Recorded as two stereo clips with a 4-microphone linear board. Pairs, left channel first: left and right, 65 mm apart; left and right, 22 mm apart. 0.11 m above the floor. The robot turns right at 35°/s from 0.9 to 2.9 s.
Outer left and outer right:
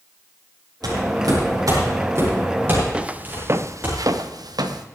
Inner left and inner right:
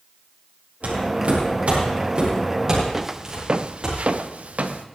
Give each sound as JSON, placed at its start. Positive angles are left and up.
{"t": 0.8, "sound": "footsteps", "side_deg": -85, "distance_m": 9.0}
{"t": 2.9, "sound": "footsteps", "side_deg": -15, "distance_m": 1.3}